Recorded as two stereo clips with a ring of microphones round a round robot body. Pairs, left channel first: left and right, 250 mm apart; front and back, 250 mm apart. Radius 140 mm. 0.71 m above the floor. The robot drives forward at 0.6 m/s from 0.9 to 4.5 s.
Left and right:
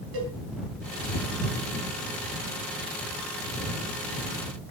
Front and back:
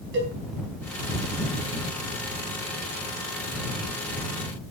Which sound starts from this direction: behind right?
A cowbell, at 0.1 s.